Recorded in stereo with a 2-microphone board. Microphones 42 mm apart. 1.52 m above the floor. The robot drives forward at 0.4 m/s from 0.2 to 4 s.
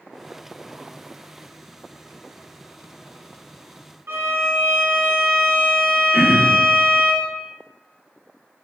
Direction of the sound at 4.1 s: 70° right (ahead or behind).